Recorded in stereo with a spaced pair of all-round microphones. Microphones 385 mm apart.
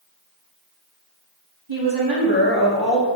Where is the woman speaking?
70° right (ahead or behind), 2 m.